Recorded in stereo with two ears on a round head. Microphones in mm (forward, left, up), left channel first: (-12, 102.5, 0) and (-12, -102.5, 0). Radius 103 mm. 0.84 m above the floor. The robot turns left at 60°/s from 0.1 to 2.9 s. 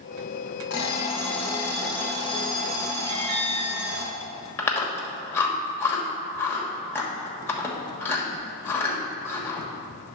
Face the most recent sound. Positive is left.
turn(degrees=10)  # may be behind; listen again after turning